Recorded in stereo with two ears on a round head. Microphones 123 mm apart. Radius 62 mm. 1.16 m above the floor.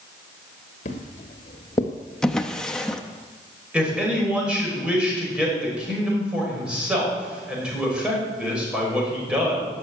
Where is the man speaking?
5° right (ahead or behind), 6 m.